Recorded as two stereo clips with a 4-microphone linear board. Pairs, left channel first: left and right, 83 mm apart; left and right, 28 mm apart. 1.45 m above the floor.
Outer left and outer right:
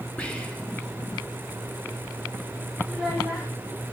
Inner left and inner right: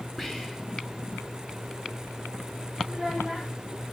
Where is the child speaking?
5° left (ahead or behind), 3 m.